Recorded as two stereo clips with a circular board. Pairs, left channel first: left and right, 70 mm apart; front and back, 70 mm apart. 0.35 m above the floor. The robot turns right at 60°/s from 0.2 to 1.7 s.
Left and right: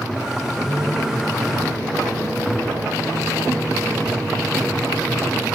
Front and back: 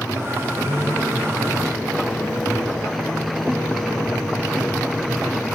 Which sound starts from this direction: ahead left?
A microwave, at 0.6 s.